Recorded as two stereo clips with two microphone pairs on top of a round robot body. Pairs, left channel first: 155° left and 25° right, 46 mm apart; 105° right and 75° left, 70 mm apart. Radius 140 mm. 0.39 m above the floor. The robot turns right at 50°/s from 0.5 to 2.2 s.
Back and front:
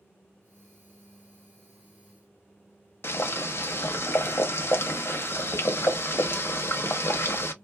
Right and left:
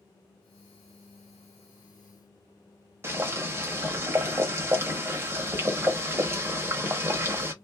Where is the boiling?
130° left, 0.9 m.